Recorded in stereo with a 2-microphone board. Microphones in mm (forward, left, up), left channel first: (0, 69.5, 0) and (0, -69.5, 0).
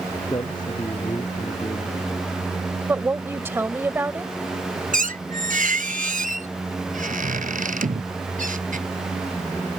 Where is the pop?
I don't hear a pop.